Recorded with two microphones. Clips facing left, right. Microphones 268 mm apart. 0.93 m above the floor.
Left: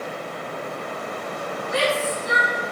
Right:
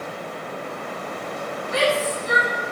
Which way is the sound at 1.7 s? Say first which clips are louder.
Right 2 dB; 40° right (ahead or behind).